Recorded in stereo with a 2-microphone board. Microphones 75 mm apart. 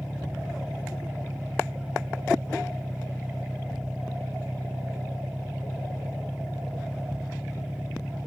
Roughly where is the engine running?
Centre.